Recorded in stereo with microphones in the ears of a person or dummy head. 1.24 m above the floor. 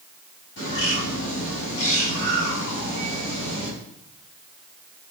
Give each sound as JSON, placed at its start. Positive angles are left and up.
{"t": 0.6, "sound": "a bird", "side_deg": 70, "distance_m": 8.5}